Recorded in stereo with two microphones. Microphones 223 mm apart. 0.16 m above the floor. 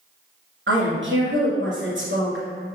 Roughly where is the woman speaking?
Right.